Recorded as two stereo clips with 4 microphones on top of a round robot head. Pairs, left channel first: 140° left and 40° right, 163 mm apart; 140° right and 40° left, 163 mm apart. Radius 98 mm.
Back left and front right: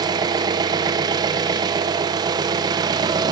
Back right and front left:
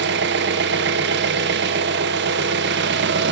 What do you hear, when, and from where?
0.0 s an engine running: 25° left, 0.9 m